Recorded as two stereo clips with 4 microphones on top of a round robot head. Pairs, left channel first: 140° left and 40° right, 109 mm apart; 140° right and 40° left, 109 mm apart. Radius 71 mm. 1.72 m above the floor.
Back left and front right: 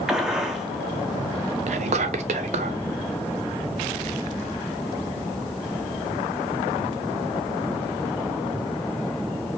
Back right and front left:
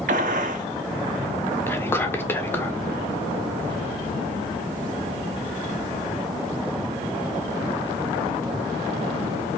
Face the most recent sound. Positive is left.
turn(degrees=-70)